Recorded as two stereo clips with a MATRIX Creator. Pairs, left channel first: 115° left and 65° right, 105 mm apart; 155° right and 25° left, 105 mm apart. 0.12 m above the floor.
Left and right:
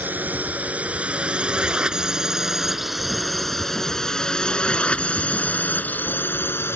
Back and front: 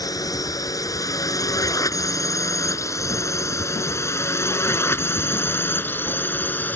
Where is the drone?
130° right; by 6.8 s 150° left.